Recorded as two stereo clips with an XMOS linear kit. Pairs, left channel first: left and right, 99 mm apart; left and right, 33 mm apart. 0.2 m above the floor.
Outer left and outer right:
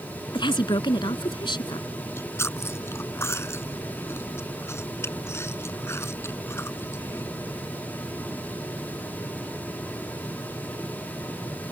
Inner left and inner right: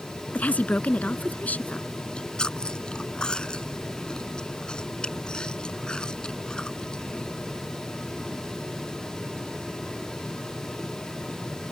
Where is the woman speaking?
50° left (ahead or behind).